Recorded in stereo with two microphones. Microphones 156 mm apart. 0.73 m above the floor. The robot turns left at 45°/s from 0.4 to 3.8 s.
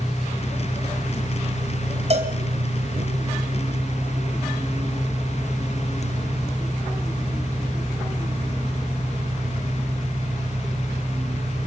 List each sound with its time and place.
0.0 s an engine running: 5° left, 1.2 m; by 11.7 s 150° right, 1.2 m
2.1 s a cowbell: 45° right (ahead or behind), 2.5 m; by 2.3 s 55° right (ahead or behind), 2.5 m